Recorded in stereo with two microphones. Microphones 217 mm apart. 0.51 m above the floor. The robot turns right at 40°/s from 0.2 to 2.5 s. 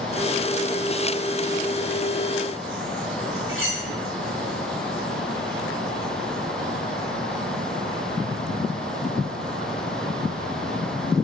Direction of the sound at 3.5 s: 70° right (ahead or behind).